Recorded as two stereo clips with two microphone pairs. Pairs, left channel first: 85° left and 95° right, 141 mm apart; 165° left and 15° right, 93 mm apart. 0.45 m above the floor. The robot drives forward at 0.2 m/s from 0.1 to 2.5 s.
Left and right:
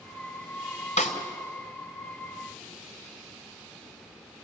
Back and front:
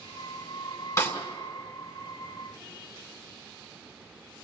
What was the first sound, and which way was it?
A snare drum, 110° left.